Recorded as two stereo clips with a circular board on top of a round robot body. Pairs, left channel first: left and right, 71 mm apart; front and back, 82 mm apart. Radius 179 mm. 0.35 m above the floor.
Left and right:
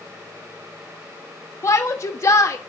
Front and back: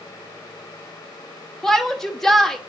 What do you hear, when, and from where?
1.6 s a shout: 85° left, 1.3 m